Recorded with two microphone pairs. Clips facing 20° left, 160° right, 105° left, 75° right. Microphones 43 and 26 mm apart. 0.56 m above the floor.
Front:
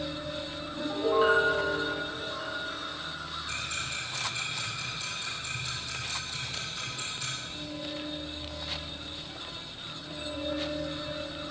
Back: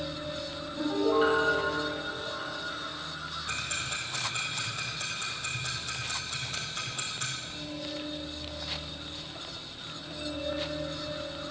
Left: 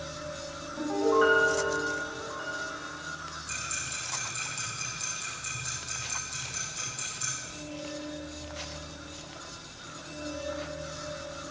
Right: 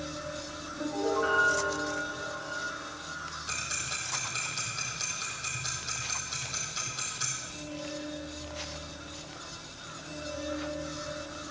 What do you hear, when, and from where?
0.8 s a piano: 110° left, 4 m
3.5 s ticking: 120° right, 3 m